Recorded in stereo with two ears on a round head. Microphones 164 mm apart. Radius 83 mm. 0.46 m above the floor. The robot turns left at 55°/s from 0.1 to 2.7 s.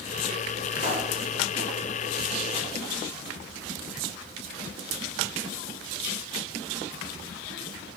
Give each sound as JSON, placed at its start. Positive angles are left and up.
{"t": 0.8, "sound": "a pop", "side_deg": 45, "distance_m": 1.5}